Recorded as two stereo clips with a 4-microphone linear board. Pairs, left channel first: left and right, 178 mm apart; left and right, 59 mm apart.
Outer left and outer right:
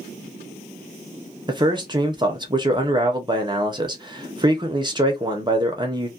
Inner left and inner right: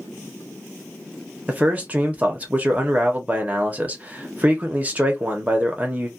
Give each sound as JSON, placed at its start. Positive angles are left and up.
{"t": 1.5, "sound": "a man speaking", "side_deg": -25, "distance_m": 0.7}